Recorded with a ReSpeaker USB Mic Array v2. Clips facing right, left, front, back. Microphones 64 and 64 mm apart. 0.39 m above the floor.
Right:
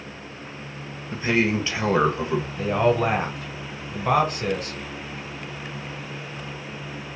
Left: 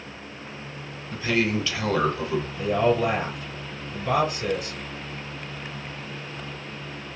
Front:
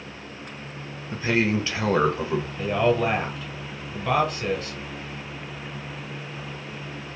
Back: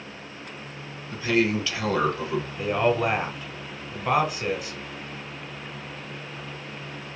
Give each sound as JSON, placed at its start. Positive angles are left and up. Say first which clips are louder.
{"t": 1.1, "sound": "a man speaking", "louder": "right 2 dB, even", "azimuth_deg": -40, "distance_m": 1.0}
{"t": 2.6, "sound": "a man speaking", "louder": "right 1 dB, front 1 dB", "azimuth_deg": -105, "distance_m": 1.8}